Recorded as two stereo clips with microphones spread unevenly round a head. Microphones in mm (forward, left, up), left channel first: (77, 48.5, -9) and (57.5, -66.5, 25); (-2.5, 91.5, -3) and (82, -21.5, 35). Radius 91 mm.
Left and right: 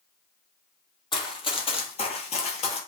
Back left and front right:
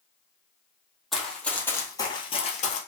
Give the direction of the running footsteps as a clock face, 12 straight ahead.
11 o'clock.